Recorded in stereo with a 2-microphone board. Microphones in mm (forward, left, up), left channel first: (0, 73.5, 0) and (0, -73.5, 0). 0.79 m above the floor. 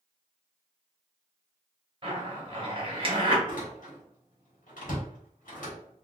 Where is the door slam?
75° left (ahead or behind), 1.2 m.